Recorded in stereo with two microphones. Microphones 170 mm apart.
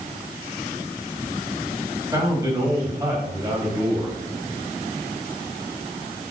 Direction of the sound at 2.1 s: 15° right (ahead or behind).